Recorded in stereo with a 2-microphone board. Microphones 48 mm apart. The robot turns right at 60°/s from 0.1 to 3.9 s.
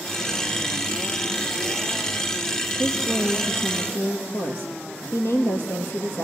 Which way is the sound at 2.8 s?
5° left.